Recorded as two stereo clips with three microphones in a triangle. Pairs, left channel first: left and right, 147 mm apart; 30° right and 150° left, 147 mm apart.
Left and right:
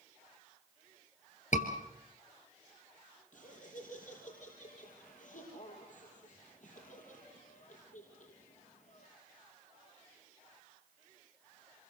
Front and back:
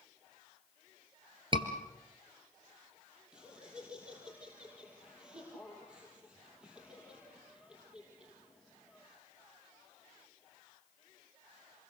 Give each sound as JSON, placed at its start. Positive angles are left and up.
{"t": 1.5, "sound": "a scream", "azimuth_deg": 105, "distance_m": 2.5}
{"t": 3.3, "sound": "laughter", "azimuth_deg": 65, "distance_m": 5.0}